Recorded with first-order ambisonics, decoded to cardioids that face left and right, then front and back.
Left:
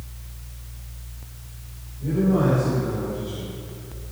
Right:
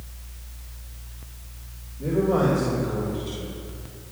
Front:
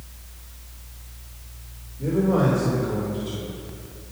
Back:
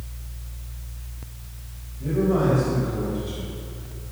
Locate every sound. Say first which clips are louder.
2.0 s a man speaking: right 1 dB, front 1 dB; 40° right, 2.5 m; by 4.1 s straight ahead, 2.5 m